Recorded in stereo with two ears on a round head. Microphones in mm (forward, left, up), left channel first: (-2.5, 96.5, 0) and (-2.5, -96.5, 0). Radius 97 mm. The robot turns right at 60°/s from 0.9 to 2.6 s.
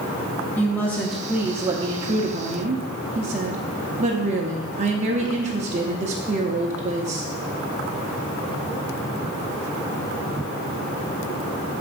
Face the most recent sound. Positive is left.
turn(degrees=-90)